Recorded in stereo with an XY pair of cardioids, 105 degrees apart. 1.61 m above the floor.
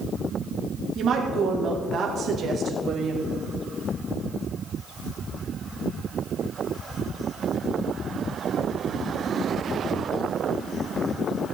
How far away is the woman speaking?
About 2.5 m.